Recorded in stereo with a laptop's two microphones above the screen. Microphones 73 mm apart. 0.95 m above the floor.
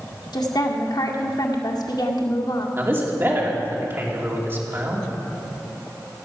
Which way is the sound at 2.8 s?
30° right (ahead or behind).